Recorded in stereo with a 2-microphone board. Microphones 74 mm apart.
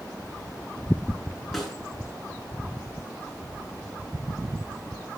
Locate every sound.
1.5 s a snare drum: centre (ahead or behind), 9 m